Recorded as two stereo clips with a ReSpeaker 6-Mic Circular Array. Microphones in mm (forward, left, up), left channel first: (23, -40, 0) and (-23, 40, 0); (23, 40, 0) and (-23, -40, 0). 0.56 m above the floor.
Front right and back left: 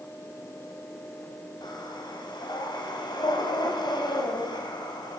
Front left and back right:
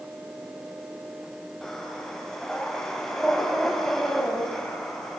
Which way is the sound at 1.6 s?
25° right.